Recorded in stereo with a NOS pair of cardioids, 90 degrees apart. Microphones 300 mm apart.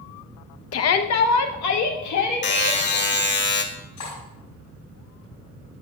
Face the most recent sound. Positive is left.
turn(degrees=70)